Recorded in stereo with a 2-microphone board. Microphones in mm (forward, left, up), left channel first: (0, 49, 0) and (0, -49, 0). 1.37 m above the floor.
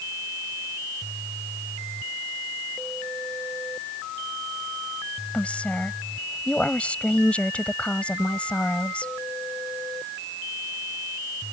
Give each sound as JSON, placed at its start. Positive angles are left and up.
{"t": 5.3, "sound": "a woman speaking", "side_deg": 10}